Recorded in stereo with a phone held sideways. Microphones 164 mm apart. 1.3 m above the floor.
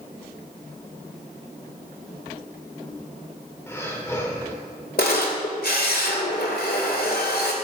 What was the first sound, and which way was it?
Breathing, 15° left (ahead or behind).